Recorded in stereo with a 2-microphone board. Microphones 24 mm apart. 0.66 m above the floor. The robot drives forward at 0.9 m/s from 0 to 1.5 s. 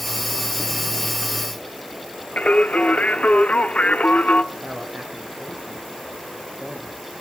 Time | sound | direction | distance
2.4 | singing | 65° left (ahead or behind) | 0.8 m
4.5 | a man speaking | 60° right (ahead or behind) | 3.5 m